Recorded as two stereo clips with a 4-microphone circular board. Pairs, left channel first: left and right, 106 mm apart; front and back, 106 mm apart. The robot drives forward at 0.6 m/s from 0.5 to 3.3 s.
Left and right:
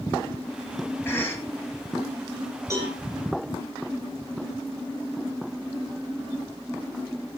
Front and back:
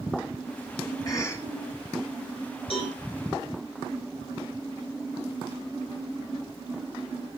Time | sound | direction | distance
1.1 | a cough | 30° left | 1.0 m
2.7 | a cowbell | 30° right | 10 m